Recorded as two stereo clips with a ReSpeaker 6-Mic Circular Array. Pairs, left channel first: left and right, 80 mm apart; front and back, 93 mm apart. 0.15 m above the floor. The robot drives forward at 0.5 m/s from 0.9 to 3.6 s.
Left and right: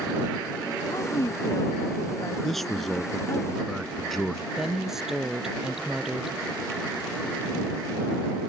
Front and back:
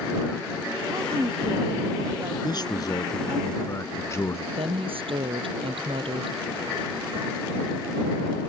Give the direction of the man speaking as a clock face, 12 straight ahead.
12 o'clock.